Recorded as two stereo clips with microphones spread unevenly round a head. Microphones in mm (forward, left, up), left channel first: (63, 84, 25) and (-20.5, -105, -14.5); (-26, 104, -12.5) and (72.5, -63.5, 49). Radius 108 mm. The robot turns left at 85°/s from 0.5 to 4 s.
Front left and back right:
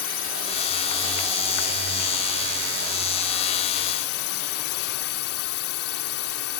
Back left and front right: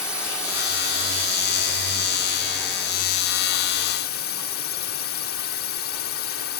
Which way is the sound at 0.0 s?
35° left.